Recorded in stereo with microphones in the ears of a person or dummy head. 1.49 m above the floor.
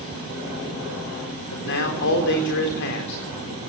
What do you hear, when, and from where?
1.5 s a man speaking: 60° left (ahead or behind), 4 m